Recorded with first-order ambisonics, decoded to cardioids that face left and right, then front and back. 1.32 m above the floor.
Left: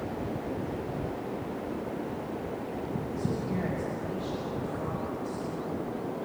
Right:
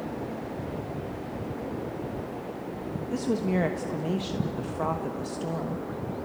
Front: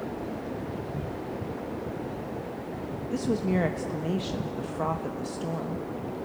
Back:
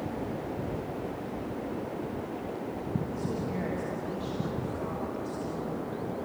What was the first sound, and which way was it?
A woman speaking, 45° right.